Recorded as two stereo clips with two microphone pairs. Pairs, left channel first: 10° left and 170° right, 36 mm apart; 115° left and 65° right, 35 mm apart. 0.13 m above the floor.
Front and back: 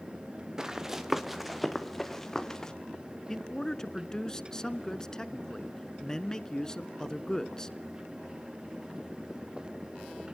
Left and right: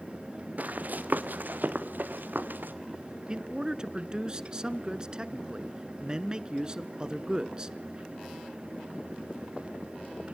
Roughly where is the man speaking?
Ahead right.